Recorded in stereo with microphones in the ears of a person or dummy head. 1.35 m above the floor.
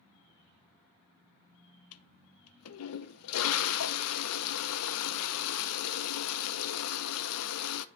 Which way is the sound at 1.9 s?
75° left (ahead or behind).